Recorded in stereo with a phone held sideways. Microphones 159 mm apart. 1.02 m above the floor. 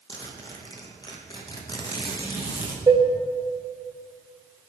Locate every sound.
0.1 s a zipper: 25° left (ahead or behind), 1.3 m
2.9 s dishes clattering: 30° right (ahead or behind), 0.8 m